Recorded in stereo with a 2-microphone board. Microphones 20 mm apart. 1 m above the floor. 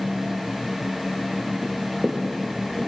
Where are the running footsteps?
Centre (ahead or behind), 1.1 m; by 2.9 s 20° right (ahead or behind), 2 m.